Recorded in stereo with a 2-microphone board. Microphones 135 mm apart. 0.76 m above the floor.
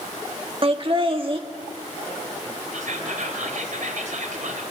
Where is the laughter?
40° right (ahead or behind), 1.5 m.